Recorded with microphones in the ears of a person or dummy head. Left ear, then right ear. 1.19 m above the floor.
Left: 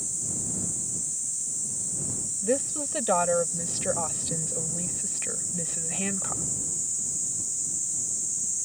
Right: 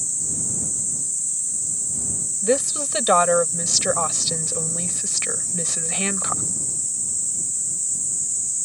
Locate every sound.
2.4 s a woman speaking: 50° right (ahead or behind)